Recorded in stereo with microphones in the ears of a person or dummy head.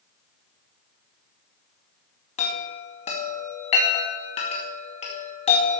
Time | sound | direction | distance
2.4 | a chime | 40° left (ahead or behind) | 2 m